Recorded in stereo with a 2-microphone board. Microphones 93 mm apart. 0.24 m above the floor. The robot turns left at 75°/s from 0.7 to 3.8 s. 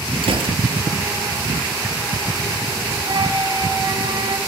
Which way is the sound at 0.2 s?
70° right (ahead or behind).